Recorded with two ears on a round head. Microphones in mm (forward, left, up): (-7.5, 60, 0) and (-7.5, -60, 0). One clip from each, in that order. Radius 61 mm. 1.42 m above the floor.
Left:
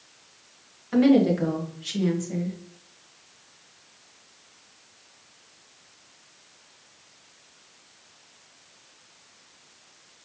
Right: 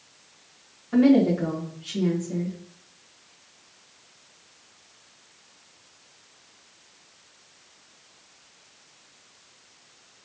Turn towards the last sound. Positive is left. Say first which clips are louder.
# even
turn(degrees=45)  # may be behind; listen again after turning